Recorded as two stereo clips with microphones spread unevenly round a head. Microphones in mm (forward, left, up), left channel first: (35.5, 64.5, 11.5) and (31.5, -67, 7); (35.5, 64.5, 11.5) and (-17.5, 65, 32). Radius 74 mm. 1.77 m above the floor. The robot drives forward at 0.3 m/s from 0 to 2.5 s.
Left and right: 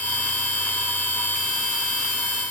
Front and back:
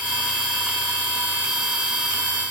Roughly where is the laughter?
I don't hear laughter.